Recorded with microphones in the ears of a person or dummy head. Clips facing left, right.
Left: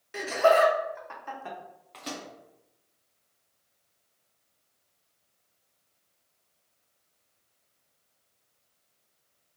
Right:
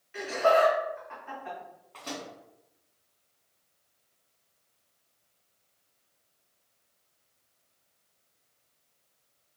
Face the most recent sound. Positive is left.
turn(degrees=20)  # may be behind; listen again after turning